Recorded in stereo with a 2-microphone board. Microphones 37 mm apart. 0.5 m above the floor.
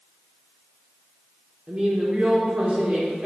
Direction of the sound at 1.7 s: 35° right (ahead or behind).